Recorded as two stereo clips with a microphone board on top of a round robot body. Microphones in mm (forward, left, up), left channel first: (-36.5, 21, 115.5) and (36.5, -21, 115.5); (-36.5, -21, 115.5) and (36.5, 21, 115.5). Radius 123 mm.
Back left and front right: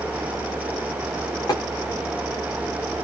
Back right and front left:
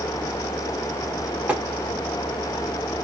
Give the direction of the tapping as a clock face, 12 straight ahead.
9 o'clock.